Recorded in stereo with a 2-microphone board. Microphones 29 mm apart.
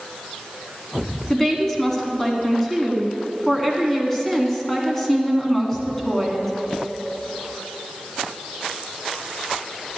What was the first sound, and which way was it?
A woman speaking, 10° left (ahead or behind).